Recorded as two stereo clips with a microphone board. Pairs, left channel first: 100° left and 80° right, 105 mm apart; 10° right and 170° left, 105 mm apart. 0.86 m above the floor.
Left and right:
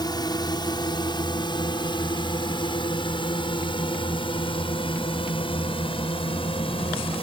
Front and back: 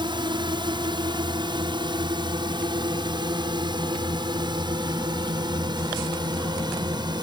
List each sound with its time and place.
0.0 s a drone: 140° left; by 7.2 s 125° left